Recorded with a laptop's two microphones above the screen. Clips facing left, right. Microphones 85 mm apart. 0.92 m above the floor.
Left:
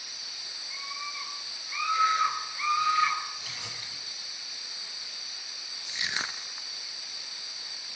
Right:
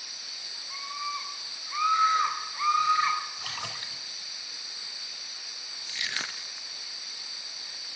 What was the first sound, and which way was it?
A scream, 40° right (ahead or behind).